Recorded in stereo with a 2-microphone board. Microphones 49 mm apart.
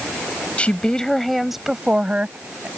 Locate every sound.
0.6 s a woman speaking: 25° left (ahead or behind); by 2.7 s 35° right (ahead or behind)